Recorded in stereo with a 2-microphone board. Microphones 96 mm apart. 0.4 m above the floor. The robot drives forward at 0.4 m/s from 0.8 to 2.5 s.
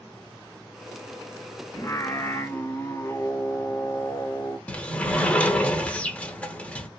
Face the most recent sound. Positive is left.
turn(degrees=15)  # may be behind; listen again after turning